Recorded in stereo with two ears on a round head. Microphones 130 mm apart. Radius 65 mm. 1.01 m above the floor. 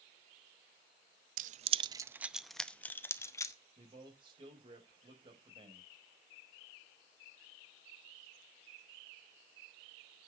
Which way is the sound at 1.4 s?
60° right (ahead or behind).